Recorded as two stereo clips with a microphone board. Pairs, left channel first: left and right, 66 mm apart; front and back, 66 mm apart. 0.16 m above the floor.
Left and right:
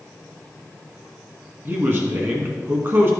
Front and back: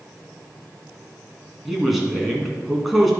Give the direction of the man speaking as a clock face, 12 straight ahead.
3 o'clock.